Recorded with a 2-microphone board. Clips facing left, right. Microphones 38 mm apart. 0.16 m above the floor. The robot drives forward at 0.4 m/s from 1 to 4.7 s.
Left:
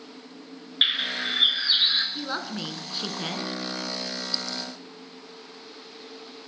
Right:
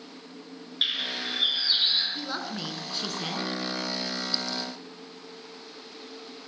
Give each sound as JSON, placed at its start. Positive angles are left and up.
{"t": 0.8, "sound": "a bird", "side_deg": 35, "distance_m": 3.0}
{"t": 2.1, "sound": "a woman speaking", "side_deg": 15, "distance_m": 1.9}